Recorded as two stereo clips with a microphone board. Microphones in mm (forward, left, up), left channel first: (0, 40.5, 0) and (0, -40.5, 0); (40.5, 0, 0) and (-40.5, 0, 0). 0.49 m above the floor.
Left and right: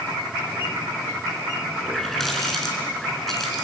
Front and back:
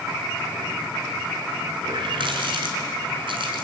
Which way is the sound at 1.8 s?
Straight behind.